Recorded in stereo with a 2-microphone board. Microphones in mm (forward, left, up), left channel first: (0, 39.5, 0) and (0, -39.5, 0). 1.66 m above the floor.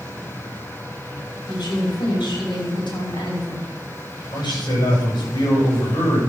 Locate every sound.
1.5 s a woman speaking: 75° left (ahead or behind), 5.5 m
4.3 s a man speaking: 65° left (ahead or behind), 8.5 m